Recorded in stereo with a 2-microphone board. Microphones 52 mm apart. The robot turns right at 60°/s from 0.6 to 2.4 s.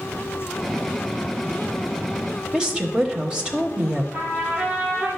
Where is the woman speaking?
15° right (ahead or behind), 1.1 m.